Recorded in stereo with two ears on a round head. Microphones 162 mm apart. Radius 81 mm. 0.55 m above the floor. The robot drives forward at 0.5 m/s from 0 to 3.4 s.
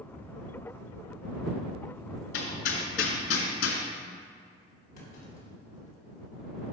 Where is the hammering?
70° left (ahead or behind), 2.5 m; by 3.8 s 85° left, 2 m.